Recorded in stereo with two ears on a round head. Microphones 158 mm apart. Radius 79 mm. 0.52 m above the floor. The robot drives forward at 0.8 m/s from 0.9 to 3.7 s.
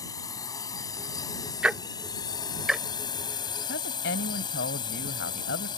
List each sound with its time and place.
0.0 s a drone: 20° left (ahead or behind); by 5.8 s 25° left (ahead or behind)
1.6 s ticking: 5° right (ahead or behind); by 2.8 s centre (ahead or behind)
3.7 s a woman speaking: 70° left (ahead or behind)